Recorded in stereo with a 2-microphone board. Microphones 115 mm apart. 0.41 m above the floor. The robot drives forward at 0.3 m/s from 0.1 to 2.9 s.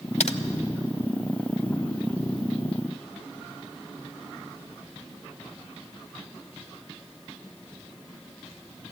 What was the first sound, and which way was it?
Typing on a keyboard, 75° left (ahead or behind).